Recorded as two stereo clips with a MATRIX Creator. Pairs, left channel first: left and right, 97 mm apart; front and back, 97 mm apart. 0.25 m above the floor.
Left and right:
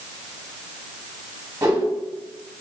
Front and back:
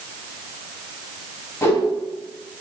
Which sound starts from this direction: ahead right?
A whoosh, at 1.6 s.